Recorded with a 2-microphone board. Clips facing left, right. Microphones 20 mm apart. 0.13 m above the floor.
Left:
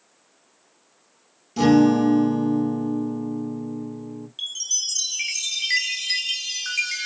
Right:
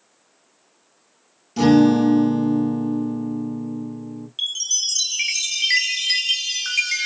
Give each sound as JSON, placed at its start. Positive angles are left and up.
{"t": 1.6, "sound": "a guitar", "side_deg": -10, "distance_m": 2.5}
{"t": 4.4, "sound": "a chime", "side_deg": -20, "distance_m": 0.5}